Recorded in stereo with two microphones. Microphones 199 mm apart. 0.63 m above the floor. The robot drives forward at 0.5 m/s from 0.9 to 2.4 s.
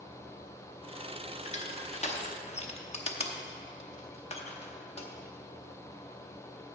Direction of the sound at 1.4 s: 35° left (ahead or behind).